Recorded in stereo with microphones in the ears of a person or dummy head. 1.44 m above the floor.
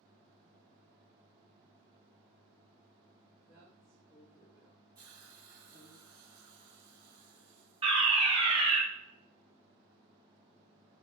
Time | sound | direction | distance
3.5 | a woman speaking | 25° right (ahead or behind) | 2 m
5.0 | a hiss | 20° right (ahead or behind) | 0.9 m
7.8 | a fire alarm | 20° right (ahead or behind) | 0.7 m